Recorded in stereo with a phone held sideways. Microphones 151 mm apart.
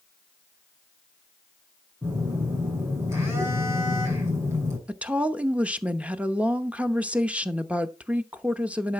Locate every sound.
2.0 s a phone buzzing: 20° right (ahead or behind), 6.5 m
4.9 s a woman speaking: 10° right (ahead or behind), 0.8 m